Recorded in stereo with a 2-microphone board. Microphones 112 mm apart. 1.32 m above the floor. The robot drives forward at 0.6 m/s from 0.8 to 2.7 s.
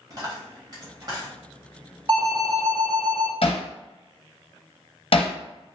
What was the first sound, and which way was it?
A dropped coin, 40° right (ahead or behind).